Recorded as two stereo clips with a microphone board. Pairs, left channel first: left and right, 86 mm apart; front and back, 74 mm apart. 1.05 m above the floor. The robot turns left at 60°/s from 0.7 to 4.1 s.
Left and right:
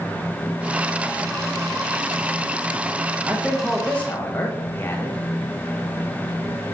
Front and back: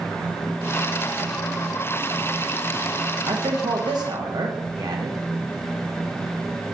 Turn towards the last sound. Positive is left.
turn(degrees=155)